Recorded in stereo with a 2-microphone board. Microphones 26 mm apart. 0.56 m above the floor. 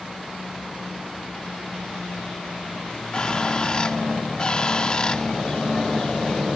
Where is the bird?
30° left (ahead or behind).